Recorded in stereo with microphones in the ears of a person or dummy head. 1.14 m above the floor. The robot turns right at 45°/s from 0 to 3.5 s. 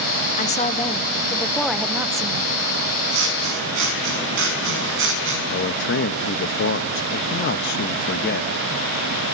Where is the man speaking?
65° left (ahead or behind), 1.1 m.